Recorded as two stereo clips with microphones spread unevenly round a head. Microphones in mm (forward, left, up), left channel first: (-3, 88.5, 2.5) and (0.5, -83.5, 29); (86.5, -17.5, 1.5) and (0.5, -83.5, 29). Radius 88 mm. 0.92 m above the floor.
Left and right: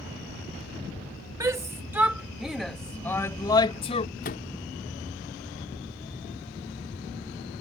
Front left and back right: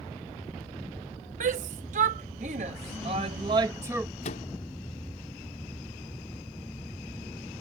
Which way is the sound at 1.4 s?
165° right.